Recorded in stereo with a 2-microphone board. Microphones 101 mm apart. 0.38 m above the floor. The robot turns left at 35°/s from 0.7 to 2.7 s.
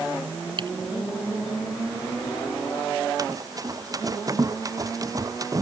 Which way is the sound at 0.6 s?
50° right (ahead or behind).